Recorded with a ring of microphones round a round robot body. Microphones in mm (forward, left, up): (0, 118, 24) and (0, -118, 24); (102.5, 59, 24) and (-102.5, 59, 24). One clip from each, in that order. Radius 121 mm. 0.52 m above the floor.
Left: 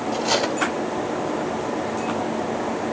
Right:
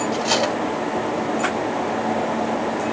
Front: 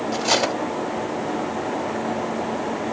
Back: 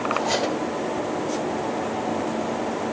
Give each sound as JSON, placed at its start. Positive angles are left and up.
{"t": 0.1, "sound": "cutlery clinking", "azimuth_deg": -10, "distance_m": 0.9}